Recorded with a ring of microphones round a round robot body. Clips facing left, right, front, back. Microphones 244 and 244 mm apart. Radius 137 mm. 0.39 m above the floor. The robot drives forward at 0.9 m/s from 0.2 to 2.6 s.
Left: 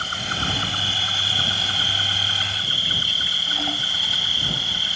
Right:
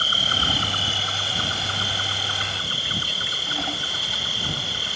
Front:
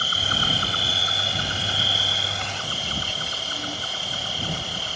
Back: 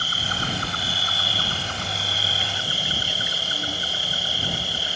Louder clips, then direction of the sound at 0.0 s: Even, front 1 dB; 45° right.